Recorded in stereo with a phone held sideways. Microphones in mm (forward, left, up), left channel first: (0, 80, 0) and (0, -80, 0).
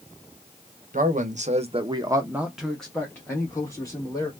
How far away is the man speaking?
About 0.9 m.